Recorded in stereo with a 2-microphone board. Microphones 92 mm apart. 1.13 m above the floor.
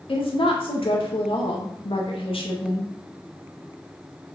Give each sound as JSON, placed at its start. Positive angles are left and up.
{"t": 0.1, "sound": "a woman speaking", "side_deg": 65, "distance_m": 2.0}